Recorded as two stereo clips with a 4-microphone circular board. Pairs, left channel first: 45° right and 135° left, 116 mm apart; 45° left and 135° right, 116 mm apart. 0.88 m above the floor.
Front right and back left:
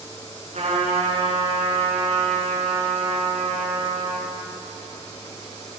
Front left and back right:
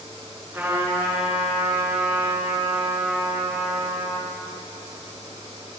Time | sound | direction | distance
0.5 | a trumpet | 155° left | 8 m